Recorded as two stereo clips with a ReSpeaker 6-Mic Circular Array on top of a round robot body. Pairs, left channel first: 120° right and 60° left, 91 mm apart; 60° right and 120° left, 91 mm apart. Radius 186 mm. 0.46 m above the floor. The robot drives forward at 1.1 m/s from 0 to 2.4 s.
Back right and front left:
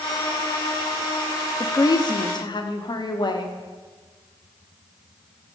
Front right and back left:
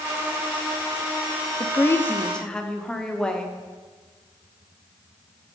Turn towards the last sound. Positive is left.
turn(degrees=-140)